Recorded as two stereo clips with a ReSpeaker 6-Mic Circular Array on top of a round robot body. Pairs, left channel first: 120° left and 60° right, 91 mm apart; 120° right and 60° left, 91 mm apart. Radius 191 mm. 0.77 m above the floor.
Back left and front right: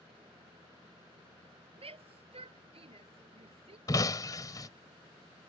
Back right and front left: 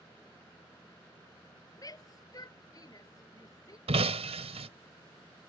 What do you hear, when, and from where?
1.8 s a shout: 70° right
3.9 s breaking glass: 70° left